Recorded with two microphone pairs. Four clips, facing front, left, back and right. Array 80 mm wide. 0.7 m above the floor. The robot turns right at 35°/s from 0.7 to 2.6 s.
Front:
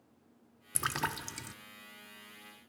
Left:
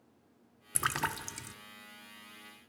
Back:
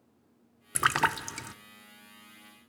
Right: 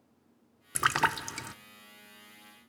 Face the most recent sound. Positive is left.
turn(degrees=-90)